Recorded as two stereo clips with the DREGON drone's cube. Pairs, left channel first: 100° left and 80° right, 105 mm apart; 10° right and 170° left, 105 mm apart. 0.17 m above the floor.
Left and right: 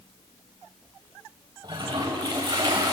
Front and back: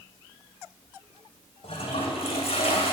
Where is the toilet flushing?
35° right, 2.5 m.